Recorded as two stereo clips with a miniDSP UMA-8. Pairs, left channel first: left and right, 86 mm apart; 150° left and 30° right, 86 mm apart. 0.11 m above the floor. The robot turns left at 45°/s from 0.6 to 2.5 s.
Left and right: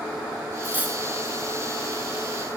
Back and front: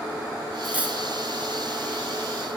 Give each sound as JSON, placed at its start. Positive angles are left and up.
{"t": 0.6, "sound": "cutlery clinking", "azimuth_deg": -60, "distance_m": 0.8}